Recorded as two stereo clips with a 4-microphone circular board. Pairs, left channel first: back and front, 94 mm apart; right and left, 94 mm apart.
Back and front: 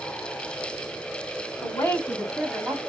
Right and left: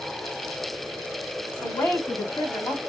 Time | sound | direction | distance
1.6 | a woman speaking | 150° right | 1.3 m